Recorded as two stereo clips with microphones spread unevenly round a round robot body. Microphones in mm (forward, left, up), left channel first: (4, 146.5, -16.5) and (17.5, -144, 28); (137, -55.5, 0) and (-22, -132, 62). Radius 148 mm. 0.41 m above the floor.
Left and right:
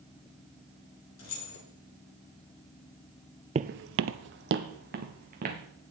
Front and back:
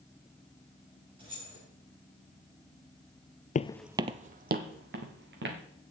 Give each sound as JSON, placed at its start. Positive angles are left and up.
{"t": 1.2, "sound": "keys jangling", "azimuth_deg": 130, "distance_m": 3.5}
{"t": 3.5, "sound": "footsteps", "azimuth_deg": -30, "distance_m": 0.5}